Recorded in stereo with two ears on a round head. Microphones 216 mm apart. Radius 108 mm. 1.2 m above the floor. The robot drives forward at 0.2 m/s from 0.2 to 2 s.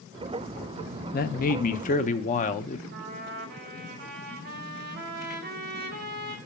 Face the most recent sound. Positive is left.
turn(degrees=-45)  # may be behind; listen again after turning